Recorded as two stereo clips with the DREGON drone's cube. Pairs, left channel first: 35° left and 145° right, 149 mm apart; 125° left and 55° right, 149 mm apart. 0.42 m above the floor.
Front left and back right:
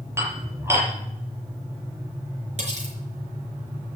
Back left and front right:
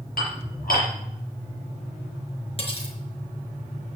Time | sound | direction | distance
0.2 | dishes clattering | 140° left | 6.5 m
2.6 | cutlery clinking | 175° left | 4 m